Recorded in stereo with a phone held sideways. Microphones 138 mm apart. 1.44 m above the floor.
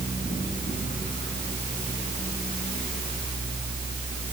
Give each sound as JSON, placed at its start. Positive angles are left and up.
{"t": 0.0, "sound": "a fan", "side_deg": 75, "distance_m": 8.5}